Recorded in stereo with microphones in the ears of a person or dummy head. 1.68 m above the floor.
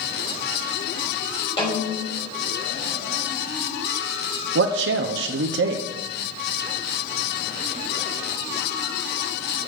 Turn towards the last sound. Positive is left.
turn(degrees=-70)  # may be behind; listen again after turning